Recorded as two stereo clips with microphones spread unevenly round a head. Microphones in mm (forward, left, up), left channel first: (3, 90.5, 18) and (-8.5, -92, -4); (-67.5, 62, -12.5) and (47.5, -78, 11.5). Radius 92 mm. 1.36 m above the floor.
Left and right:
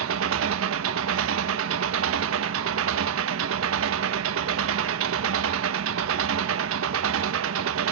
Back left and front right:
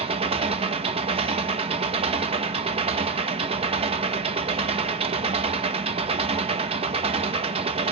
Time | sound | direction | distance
0.0 | an engine running | 105° right | 1.0 m